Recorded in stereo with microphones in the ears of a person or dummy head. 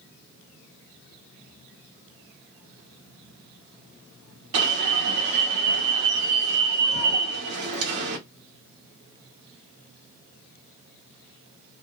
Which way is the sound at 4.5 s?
60° right (ahead or behind).